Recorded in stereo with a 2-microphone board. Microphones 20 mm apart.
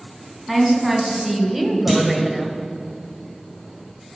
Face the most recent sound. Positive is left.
turn(degrees=0)  # may be behind; listen again after turning